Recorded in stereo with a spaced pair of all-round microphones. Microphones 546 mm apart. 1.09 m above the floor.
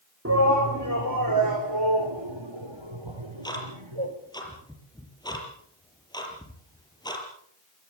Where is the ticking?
5° left (ahead or behind), 5.5 m.